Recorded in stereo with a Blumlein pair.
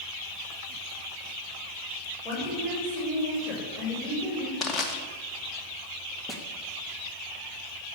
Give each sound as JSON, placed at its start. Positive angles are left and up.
{"t": 2.2, "sound": "a woman speaking", "azimuth_deg": 15, "distance_m": 6.5}
{"t": 4.6, "sound": "crushing", "azimuth_deg": 20, "distance_m": 2.5}
{"t": 6.3, "sound": "a snare drum", "azimuth_deg": -10, "distance_m": 2.5}